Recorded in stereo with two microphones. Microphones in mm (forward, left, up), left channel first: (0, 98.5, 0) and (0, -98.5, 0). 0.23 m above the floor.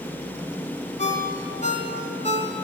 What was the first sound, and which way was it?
A ringtone, 40° left (ahead or behind).